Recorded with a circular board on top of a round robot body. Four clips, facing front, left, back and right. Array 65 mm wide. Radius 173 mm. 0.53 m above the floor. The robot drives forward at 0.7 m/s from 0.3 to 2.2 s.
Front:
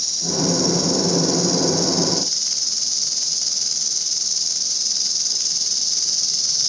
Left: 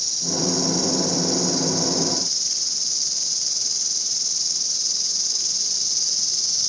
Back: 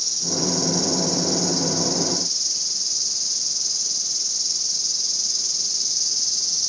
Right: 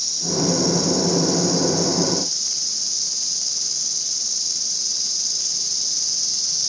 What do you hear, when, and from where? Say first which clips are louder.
0.0 s an insect: right 3 dB, front 4 dB; 5° left, 5.5 m